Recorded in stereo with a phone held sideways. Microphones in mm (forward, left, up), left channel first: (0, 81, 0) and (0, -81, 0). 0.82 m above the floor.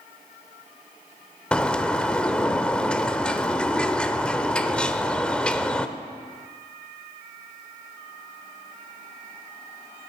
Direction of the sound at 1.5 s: 5° left (ahead or behind).